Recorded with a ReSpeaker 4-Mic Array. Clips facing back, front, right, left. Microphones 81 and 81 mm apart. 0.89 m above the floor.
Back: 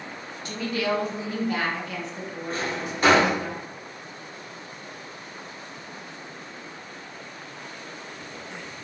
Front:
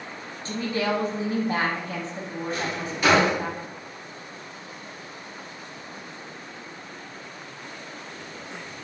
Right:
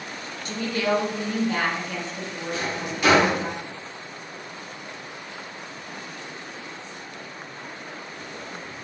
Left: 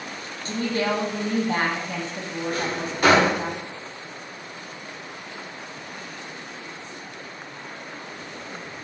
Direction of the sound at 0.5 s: 45° left.